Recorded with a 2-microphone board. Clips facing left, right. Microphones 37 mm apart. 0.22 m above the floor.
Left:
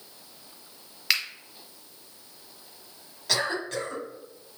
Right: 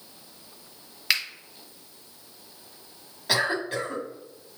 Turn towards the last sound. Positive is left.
turn(degrees=-20)  # may be behind; listen again after turning